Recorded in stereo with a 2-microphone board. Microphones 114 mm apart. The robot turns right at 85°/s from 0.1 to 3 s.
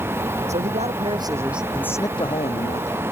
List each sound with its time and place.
0.5 s a man speaking: 100° right; by 3.0 s 110° left